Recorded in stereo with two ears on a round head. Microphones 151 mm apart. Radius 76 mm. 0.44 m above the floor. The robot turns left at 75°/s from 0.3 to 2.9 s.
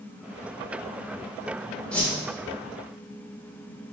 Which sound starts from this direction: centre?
A whoosh, at 1.9 s.